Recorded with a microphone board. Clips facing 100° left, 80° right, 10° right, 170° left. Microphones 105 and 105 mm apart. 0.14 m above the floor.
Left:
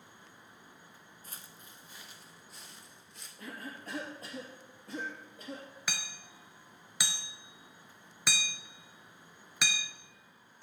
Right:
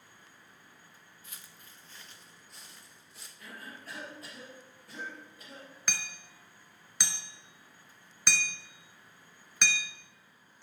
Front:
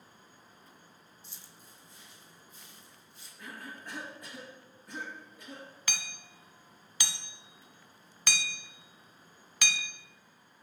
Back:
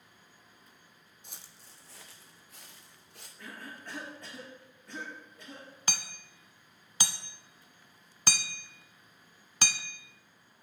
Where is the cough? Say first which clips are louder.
Left 4 dB, front 1 dB; 65° left, 2.5 m.